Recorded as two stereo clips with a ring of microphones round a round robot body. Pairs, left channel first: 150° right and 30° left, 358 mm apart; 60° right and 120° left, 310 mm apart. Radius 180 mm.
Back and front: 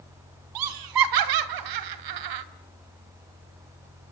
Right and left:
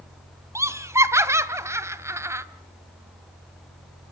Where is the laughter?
40° left, 1.9 m.